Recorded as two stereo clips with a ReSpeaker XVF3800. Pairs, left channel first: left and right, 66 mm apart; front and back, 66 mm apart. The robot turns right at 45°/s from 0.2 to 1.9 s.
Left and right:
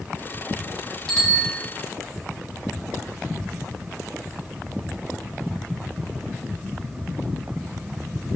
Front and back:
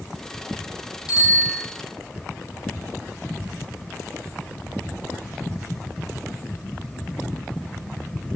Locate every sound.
1.1 s a bicycle bell: 10° left, 4.5 m; by 1.6 s 30° left, 4.5 m